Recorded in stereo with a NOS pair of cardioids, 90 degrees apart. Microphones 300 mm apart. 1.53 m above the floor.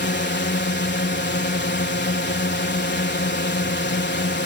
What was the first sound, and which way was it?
A drone, 35° left.